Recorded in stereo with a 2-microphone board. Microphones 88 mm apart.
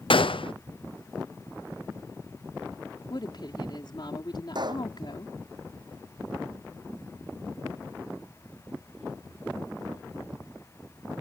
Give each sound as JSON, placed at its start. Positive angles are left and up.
{"t": 0.1, "sound": "a gunshot", "side_deg": 75}
{"t": 3.1, "sound": "a woman speaking", "side_deg": 55}
{"t": 4.5, "sound": "a pop", "side_deg": -55}